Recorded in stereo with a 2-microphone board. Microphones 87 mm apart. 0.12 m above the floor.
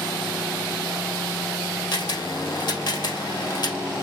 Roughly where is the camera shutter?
Left.